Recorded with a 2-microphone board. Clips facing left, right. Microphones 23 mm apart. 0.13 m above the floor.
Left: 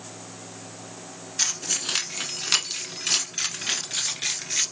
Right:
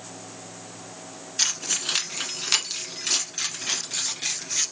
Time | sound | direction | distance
1.4 | keys jangling | 15° right (ahead or behind) | 1.1 m